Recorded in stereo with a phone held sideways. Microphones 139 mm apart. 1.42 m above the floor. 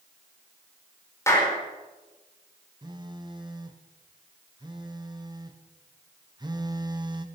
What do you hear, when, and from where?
1.3 s a clap: 20° left (ahead or behind), 4.5 m
2.8 s a phone buzzing: 30° right (ahead or behind), 1.2 m